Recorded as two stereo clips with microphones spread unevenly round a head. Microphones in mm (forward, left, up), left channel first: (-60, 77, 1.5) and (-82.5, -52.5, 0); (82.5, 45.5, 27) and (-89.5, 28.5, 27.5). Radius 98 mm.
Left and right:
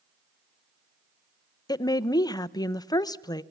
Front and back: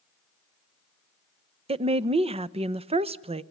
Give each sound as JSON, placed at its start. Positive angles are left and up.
{"t": 1.7, "sound": "a woman speaking", "azimuth_deg": 135, "distance_m": 0.9}